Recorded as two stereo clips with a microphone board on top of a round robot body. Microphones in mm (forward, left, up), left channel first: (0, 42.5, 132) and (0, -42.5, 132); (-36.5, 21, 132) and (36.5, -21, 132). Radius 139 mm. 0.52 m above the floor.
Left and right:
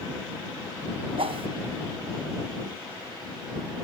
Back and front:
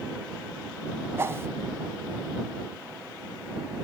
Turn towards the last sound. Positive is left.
turn(degrees=-90)